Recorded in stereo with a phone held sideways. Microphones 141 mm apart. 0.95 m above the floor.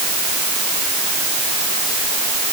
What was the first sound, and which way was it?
Only background noise.